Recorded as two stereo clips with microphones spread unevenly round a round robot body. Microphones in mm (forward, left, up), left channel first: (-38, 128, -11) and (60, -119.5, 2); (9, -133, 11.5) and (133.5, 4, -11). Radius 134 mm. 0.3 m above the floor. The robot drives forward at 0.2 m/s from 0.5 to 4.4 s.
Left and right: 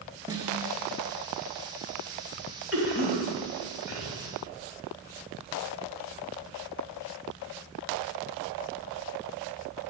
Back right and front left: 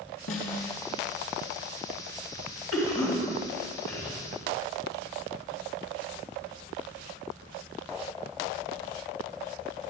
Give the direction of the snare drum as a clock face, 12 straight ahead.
5 o'clock.